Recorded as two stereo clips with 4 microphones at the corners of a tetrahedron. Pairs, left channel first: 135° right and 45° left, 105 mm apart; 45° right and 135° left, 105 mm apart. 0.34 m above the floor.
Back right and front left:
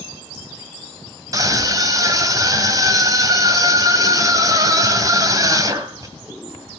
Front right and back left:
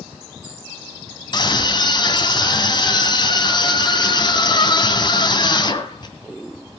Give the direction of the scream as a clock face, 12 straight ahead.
12 o'clock.